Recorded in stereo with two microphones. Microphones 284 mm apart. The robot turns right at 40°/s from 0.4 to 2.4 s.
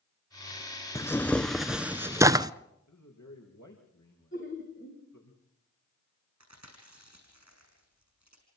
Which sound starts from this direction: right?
Chewing, at 6.4 s.